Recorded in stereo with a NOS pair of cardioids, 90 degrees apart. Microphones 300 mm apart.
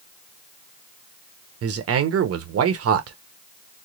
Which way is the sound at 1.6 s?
50° right.